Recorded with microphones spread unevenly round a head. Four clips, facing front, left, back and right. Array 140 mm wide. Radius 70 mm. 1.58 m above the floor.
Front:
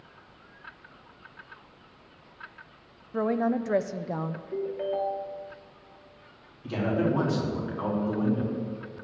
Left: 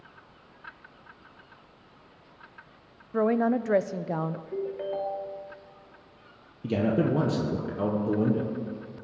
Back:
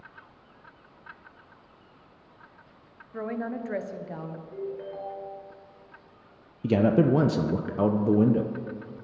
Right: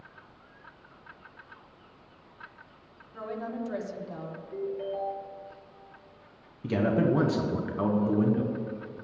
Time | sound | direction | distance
3.1 | a woman speaking | 70° left | 0.7 m
4.5 | a ringtone | 55° left | 1.6 m
6.6 | a man speaking | 175° left | 1.1 m